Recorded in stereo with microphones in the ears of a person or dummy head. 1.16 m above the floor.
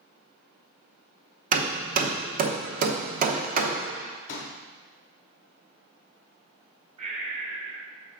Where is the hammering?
40° right (ahead or behind), 0.8 m.